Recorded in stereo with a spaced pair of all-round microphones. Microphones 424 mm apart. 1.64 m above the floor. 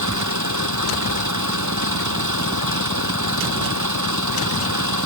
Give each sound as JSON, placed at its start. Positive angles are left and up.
{"t": 0.0, "sound": "an engine running", "side_deg": -40}